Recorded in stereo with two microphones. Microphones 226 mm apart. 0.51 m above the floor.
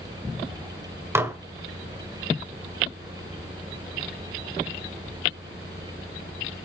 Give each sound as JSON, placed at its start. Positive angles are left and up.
{"t": 1.1, "sound": "dishes clattering", "side_deg": -10, "distance_m": 1.3}